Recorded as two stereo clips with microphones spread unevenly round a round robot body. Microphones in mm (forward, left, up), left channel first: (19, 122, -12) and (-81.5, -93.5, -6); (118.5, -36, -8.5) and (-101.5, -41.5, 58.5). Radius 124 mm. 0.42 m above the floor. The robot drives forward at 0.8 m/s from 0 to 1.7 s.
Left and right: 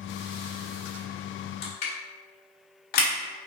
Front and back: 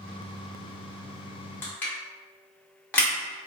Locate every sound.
1.6 s crushing: 50° left, 1.4 m; by 3.1 s 55° left, 1.4 m